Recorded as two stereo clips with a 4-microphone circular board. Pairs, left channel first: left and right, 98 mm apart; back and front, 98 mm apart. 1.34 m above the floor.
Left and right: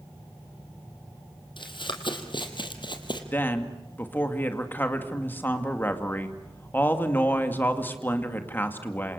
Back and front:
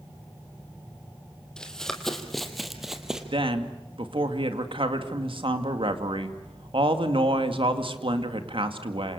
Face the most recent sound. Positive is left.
turn(degrees=20)